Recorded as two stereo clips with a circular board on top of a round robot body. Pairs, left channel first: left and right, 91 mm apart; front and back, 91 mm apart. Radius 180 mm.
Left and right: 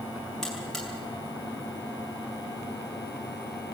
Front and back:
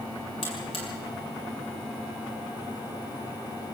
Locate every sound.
0.4 s a buzzer: 5° left, 6 m